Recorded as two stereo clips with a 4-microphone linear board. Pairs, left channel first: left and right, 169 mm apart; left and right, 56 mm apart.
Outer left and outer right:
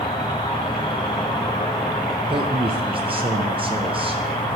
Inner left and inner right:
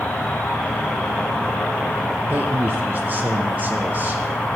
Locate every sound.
0.0 s an insect: 30° left (ahead or behind), 1.1 m
2.2 s a man speaking: 30° right (ahead or behind), 0.6 m